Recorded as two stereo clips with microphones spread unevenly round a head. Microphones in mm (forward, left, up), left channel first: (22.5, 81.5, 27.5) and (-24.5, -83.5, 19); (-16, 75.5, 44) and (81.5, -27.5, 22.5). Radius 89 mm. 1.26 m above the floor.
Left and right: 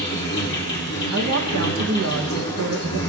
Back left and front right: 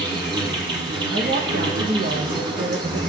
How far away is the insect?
About 1.8 m.